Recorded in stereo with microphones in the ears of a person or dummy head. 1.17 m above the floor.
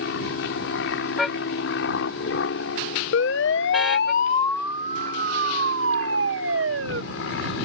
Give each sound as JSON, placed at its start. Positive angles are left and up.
{"t": 0.0, "sound": "an aircraft", "side_deg": 70}
{"t": 1.2, "sound": "a car horn", "side_deg": -5}
{"t": 3.1, "sound": "a siren", "side_deg": 75}